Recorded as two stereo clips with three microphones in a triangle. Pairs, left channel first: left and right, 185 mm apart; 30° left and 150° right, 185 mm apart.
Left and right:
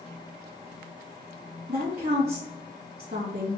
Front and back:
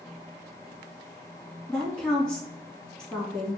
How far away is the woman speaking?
About 2.5 m.